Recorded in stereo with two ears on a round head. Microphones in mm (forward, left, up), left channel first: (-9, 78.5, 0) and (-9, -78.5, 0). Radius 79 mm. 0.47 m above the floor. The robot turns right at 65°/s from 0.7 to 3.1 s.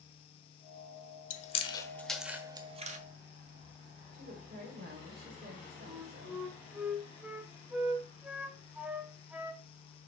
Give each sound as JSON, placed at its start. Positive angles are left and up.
{"t": 1.3, "sound": "chewing", "side_deg": 45, "distance_m": 1.0}
{"t": 4.1, "sound": "a woman speaking", "side_deg": -55, "distance_m": 2.5}
{"t": 5.9, "sound": "a flute", "side_deg": -5, "distance_m": 0.9}